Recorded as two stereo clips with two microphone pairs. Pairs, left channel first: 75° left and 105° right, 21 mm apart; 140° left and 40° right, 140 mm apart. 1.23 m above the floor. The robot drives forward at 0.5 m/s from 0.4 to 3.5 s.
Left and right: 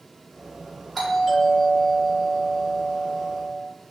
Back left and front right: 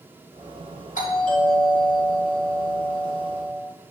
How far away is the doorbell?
About 3.5 m.